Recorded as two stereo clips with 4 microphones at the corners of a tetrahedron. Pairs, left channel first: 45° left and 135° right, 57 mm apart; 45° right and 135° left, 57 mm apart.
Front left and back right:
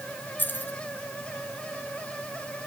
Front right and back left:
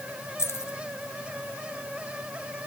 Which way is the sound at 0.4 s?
10° right.